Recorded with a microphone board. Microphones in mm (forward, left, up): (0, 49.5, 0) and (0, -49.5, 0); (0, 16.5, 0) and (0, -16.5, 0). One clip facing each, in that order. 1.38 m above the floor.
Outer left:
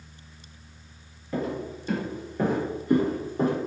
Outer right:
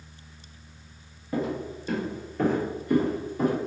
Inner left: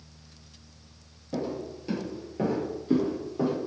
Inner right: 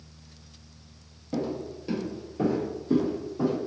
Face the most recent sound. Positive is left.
turn(degrees=30)  # may be behind; listen again after turning